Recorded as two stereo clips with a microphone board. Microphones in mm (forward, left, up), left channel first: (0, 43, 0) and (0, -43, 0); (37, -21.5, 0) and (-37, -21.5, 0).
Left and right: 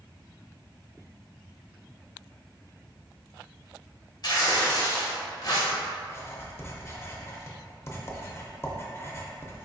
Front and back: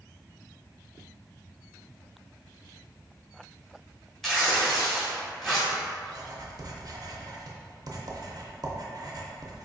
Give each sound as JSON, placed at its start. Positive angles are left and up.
{"t": 4.2, "sound": "tearing paper", "azimuth_deg": 85, "distance_m": 1.4}
{"t": 6.0, "sound": "writing", "azimuth_deg": 150, "distance_m": 0.5}